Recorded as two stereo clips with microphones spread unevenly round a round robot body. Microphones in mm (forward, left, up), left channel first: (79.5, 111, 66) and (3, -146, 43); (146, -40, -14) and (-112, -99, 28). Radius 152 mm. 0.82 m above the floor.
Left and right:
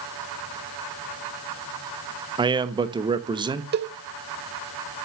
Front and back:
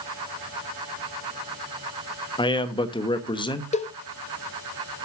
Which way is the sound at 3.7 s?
55° right.